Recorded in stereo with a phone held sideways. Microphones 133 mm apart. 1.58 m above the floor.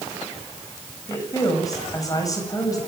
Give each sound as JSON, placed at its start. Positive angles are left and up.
{"t": 1.1, "sound": "a woman speaking", "side_deg": 25, "distance_m": 8.5}